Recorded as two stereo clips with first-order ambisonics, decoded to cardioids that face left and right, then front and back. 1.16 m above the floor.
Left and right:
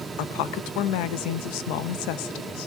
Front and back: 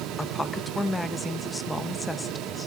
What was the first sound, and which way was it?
A woman speaking, 80° left.